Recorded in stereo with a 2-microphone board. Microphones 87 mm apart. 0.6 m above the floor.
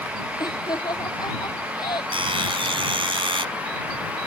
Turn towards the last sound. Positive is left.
turn(degrees=-85)